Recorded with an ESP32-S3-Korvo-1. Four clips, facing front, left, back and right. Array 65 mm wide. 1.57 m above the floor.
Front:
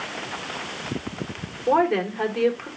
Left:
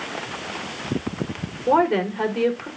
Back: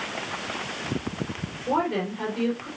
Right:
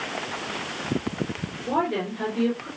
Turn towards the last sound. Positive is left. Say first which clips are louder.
# left 7 dB, front 5 dB
turn(degrees=60)